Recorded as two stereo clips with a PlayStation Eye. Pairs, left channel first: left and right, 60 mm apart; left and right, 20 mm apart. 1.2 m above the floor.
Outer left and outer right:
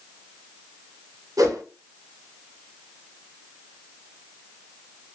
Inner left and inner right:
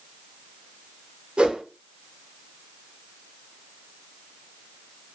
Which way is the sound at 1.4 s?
65° right (ahead or behind).